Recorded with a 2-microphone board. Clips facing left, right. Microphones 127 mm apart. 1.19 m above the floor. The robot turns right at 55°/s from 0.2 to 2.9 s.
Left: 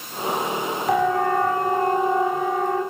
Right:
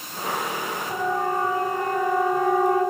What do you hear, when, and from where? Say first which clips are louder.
0.9 s a siren: left 6 dB; 80° left, 9.5 m; by 2.8 s 20° right (ahead or behind), 10 m